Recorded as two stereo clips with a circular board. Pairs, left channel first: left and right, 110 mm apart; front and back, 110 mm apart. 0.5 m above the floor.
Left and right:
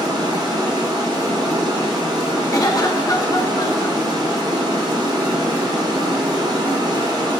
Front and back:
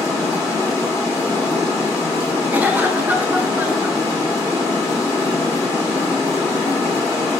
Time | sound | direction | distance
0.0 | running water | 55° right | 1.2 m
2.5 | a cough | 120° left | 0.8 m